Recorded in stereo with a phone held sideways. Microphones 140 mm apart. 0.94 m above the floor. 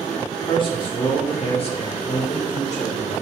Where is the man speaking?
40° left (ahead or behind), 2 m; by 3.2 s 55° left (ahead or behind), 3.5 m.